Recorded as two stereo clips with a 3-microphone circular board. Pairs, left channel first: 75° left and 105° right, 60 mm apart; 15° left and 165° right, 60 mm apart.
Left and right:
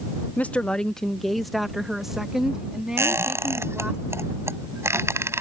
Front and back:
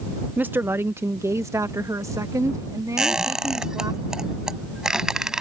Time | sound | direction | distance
0.4 | a woman speaking | 135° left | ?
3.0 | a squeak | 85° right | ?